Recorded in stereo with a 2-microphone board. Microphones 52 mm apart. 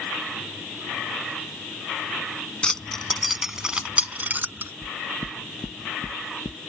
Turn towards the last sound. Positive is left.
turn(degrees=40)  # may be behind; listen again after turning